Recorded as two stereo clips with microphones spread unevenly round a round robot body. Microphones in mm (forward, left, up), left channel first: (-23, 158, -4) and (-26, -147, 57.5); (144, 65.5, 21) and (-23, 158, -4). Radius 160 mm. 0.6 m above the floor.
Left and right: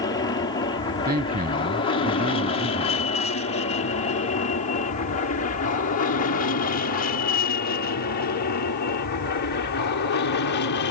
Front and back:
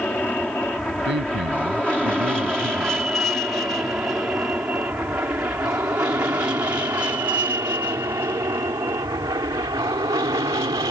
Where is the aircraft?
55° left; by 10.9 s 95° left.